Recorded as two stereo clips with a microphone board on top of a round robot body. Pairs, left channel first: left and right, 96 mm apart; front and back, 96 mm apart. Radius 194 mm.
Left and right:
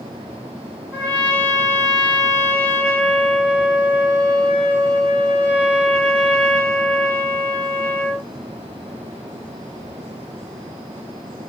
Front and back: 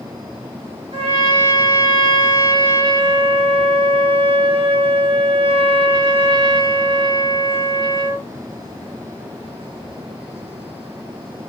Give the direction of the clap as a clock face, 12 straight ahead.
No clap in this recording.